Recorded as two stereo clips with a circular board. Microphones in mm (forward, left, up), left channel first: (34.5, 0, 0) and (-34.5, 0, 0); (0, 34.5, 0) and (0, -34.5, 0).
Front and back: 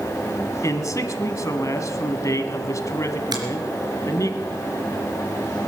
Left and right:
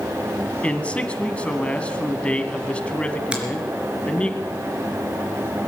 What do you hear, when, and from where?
0.6 s a man speaking: 20° left, 1.5 m
3.3 s a finger snap: 165° right, 3.5 m